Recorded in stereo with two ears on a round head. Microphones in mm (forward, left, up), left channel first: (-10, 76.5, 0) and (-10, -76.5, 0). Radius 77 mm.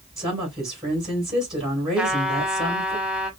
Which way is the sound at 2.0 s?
5° right (ahead or behind).